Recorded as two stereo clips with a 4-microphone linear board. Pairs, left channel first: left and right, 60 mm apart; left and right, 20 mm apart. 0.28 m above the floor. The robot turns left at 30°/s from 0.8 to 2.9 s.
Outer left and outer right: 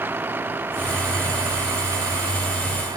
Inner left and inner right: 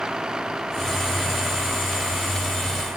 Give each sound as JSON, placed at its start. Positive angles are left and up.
{"t": 0.0, "sound": "a vehicle", "side_deg": -35}